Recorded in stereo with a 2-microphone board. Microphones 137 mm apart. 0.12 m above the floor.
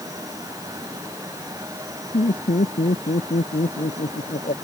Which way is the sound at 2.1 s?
80° left.